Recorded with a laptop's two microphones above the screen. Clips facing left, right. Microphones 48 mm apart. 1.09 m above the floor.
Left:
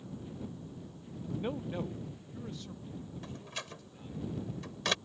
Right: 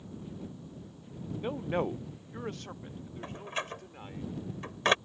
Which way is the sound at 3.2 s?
35° right (ahead or behind).